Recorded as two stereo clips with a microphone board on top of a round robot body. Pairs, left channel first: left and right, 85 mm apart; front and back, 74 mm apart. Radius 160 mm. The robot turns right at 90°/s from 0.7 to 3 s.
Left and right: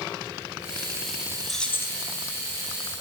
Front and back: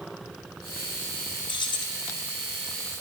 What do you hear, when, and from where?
1.5 s keys jangling: straight ahead, 0.6 m; by 2.0 s 50° left, 0.6 m